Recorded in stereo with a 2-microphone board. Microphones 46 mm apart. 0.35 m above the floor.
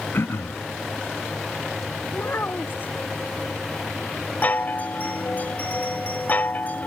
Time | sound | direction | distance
0.1 | throat clearing | 70° left (ahead or behind) | ?
2.1 | a child speaking | 50° left (ahead or behind) | ?
4.4 | a chime | 40° left (ahead or behind) | ?